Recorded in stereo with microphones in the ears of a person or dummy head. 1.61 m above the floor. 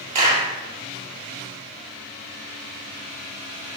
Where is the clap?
40° right (ahead or behind), 1.8 m.